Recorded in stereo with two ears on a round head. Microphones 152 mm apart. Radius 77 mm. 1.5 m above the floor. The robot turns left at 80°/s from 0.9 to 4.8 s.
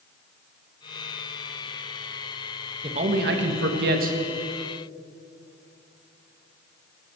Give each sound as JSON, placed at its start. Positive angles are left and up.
{"t": 2.8, "sound": "a man speaking", "azimuth_deg": -30, "distance_m": 1.7}